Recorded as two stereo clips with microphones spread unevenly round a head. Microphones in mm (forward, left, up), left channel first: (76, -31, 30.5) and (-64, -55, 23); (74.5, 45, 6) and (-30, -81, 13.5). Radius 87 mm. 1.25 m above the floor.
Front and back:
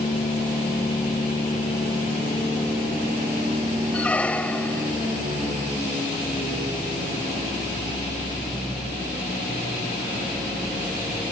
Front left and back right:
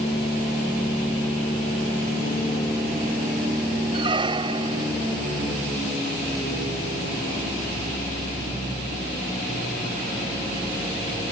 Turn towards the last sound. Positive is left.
turn(degrees=-70)